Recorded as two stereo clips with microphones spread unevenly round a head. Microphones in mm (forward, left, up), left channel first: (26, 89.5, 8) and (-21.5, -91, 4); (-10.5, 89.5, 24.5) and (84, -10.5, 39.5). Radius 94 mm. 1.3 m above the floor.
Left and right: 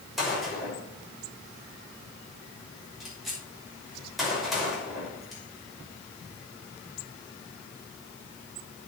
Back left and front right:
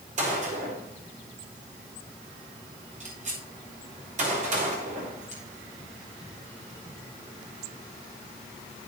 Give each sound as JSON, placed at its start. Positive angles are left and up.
{"t": 0.2, "sound": "a gunshot", "azimuth_deg": -15, "distance_m": 6.0}